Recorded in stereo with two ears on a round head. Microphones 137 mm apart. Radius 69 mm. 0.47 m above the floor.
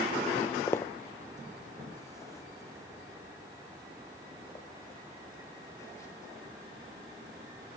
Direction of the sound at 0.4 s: 15° left (ahead or behind).